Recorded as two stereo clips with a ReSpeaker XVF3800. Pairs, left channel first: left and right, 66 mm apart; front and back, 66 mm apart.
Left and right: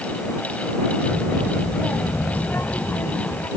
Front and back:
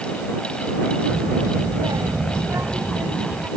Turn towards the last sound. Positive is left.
turn(degrees=130)